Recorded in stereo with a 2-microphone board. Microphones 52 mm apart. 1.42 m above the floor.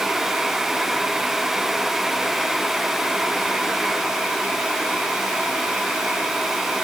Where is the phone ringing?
I don't hear a phone ringing.